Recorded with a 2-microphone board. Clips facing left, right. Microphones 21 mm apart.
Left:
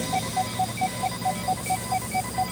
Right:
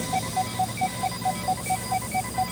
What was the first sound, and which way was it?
Only background noise.